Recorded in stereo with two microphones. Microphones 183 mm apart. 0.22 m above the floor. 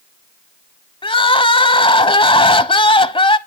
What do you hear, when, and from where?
1.0 s crying: 30° left (ahead or behind), 0.7 m